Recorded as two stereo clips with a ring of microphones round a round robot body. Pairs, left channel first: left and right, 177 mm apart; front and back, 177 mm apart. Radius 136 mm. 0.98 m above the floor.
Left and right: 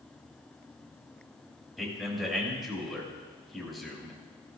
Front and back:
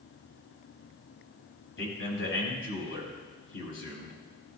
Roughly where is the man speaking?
Ahead.